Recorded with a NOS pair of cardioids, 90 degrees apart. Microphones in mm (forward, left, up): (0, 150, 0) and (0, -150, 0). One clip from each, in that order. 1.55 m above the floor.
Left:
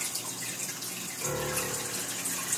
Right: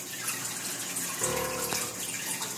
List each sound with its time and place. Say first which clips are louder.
1.2 s a piano: right 1 dB; 55° right, 7.5 m